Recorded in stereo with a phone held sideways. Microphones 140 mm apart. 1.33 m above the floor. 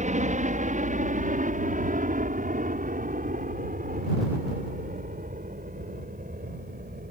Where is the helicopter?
60° right (ahead or behind); by 7.1 s 80° right.